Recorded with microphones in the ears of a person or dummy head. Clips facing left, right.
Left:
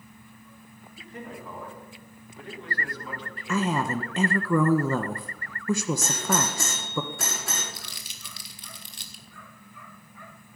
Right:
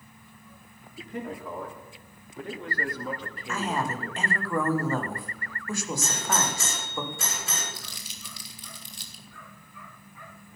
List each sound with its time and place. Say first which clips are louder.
1.0 s a man speaking: right 5 dB; 50° right (ahead or behind), 3.5 m; by 4.2 s 30° right (ahead or behind), 2.0 m
3.5 s a woman speaking: left 4 dB; 70° left (ahead or behind), 1.6 m
6.0 s a doorbell: left 2 dB; 45° left (ahead or behind), 5.5 m
7.7 s crumpling: right 1 dB; 50° left (ahead or behind), 1.9 m